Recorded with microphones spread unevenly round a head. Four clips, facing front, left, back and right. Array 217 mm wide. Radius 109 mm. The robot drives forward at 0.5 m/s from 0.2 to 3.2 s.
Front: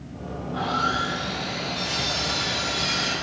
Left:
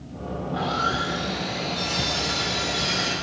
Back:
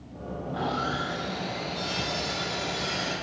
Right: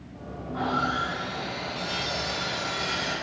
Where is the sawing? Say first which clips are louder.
Left 1 dB, front 4 dB; 80° left, 2.5 m; by 3.1 s 110° left, 2.5 m.